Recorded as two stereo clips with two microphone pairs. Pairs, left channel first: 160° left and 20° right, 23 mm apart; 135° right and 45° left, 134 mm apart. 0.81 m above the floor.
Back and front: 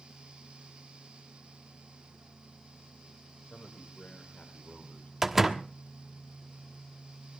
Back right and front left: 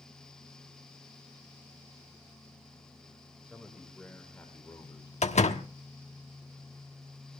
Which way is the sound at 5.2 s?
105° right.